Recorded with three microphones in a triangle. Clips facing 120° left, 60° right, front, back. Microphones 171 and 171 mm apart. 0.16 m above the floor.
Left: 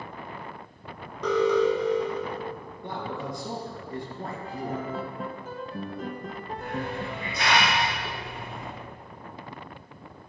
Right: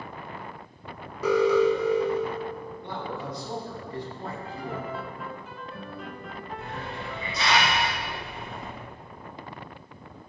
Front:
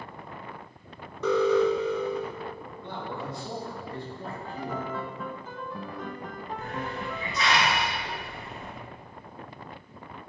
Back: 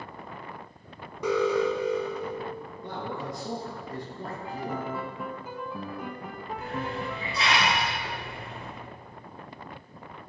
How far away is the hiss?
About 2 m.